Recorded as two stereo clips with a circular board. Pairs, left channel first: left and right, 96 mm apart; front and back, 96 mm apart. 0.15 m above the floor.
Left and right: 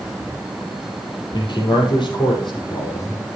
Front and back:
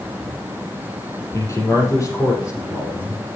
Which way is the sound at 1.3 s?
55° left.